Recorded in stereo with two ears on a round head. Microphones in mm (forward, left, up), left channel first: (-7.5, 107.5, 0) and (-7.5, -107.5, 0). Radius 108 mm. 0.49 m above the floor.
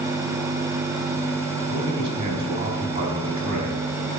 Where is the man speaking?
20° right (ahead or behind), 4 m.